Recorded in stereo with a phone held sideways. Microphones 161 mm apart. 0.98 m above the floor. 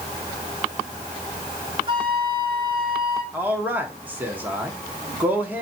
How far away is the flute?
About 5 m.